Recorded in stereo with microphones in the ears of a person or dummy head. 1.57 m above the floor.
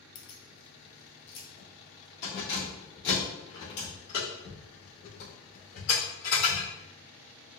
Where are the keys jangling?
55° left (ahead or behind), 0.9 m; by 6.7 s 65° left (ahead or behind), 4 m.